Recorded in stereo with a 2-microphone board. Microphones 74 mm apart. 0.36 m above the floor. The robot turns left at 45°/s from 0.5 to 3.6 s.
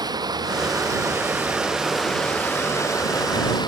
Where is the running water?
115° right; by 3.7 s 105° left.